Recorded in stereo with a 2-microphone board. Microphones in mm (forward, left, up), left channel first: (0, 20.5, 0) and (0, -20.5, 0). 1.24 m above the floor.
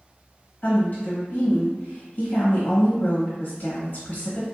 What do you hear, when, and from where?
0.6 s a woman speaking: 45° left (ahead or behind), 1.1 m